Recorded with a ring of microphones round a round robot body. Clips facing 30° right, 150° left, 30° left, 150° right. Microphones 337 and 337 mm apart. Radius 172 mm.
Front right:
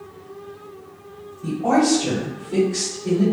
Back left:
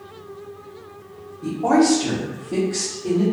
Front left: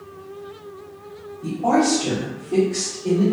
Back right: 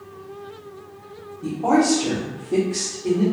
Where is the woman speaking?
165° left, 1.4 m; by 3.2 s 120° left, 1.4 m.